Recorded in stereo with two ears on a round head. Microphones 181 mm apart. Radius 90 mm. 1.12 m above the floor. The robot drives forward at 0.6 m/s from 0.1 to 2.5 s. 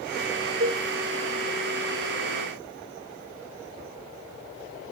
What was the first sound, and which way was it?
A cowbell, 50° right (ahead or behind).